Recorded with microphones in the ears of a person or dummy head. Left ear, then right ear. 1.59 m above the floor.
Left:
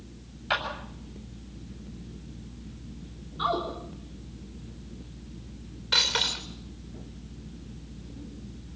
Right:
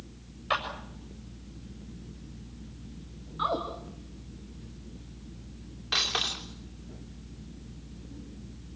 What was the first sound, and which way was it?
A clap, 15° right (ahead or behind).